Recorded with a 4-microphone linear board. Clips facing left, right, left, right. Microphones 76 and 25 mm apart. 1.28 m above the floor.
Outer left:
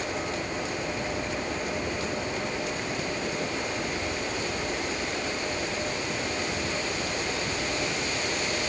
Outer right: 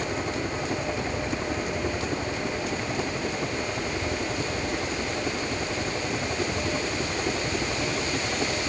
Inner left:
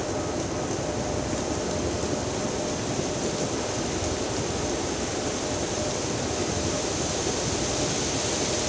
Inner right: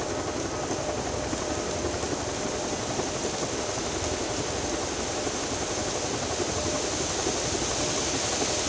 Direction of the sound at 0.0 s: 45° right (ahead or behind).